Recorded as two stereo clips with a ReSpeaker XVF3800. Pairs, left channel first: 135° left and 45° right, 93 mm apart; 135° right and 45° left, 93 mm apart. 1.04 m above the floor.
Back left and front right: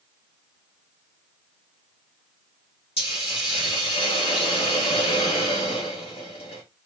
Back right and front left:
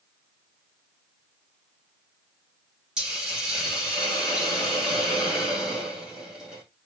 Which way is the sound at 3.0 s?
125° left.